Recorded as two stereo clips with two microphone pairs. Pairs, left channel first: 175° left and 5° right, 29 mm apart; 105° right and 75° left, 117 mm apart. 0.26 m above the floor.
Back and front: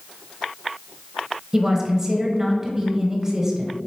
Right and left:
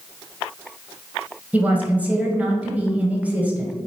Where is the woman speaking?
25° left, 0.9 m.